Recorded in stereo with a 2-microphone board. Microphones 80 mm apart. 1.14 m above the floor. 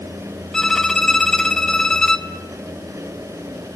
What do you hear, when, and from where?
0.5 s a violin: 10° left (ahead or behind), 1.0 m